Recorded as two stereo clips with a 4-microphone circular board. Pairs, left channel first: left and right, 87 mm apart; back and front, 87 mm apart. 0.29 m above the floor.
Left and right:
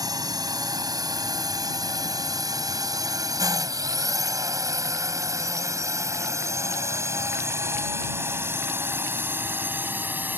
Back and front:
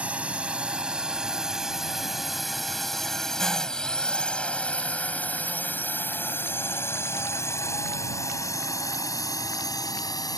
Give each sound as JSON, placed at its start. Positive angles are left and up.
{"t": 0.0, "sound": "a drone", "azimuth_deg": -70}